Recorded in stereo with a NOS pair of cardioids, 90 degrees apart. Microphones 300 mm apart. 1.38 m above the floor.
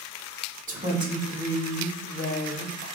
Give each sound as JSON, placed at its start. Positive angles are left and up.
{"t": 0.7, "sound": "a woman speaking", "azimuth_deg": -30, "distance_m": 1.2}